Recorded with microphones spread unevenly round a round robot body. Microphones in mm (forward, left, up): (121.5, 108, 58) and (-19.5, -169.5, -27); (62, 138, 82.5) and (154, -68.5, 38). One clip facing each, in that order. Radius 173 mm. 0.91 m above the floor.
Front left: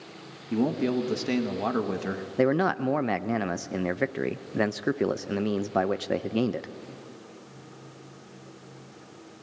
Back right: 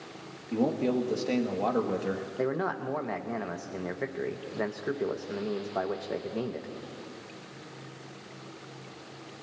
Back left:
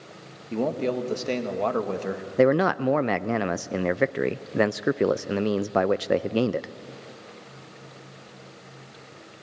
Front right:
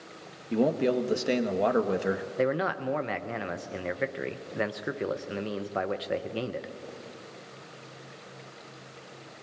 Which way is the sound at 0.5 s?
5° left.